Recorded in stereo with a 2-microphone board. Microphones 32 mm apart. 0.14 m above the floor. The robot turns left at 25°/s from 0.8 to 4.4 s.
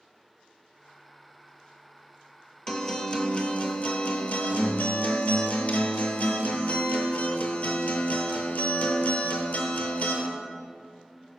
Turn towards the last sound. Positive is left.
turn(degrees=110)